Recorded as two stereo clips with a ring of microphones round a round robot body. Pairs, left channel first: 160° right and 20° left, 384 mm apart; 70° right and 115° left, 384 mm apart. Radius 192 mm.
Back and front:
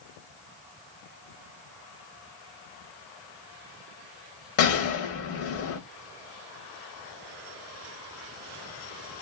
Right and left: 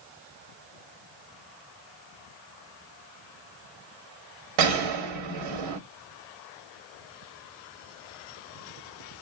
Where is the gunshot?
145° left, 0.9 m.